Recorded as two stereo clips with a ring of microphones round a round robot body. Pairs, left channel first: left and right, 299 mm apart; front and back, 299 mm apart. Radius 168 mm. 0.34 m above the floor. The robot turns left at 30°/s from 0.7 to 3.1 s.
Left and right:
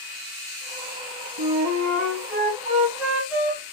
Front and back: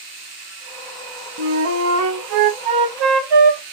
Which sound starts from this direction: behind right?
A flute, at 1.4 s.